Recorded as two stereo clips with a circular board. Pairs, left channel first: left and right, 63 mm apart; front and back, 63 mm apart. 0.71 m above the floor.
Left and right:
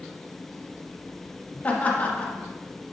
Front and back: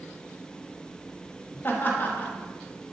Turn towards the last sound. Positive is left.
turn(degrees=35)